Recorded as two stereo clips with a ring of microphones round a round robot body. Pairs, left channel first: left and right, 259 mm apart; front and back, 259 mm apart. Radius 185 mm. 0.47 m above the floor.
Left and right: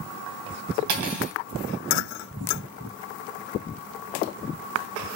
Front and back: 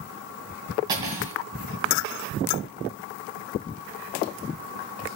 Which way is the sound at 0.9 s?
100° right.